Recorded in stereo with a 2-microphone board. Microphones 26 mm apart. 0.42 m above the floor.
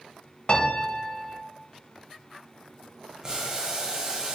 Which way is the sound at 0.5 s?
30° left (ahead or behind).